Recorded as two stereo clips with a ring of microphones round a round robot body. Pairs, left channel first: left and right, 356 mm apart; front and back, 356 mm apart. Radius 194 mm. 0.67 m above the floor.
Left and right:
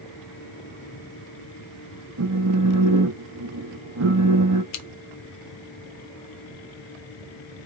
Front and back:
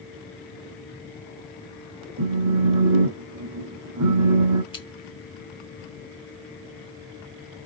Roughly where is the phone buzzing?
Behind right.